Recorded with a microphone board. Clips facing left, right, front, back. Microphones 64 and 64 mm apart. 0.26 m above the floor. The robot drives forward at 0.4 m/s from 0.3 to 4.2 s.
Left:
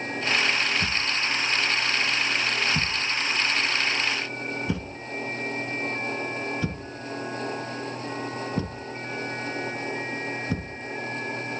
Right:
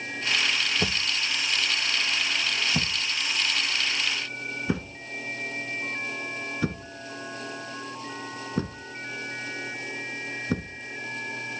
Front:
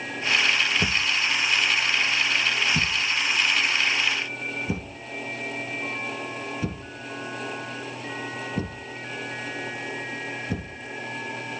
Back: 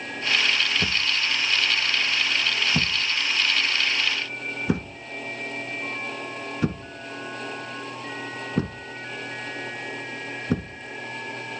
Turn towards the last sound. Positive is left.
turn(degrees=-160)